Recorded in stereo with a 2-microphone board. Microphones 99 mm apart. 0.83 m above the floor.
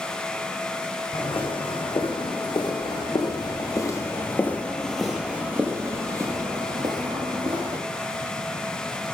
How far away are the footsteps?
About 2 m.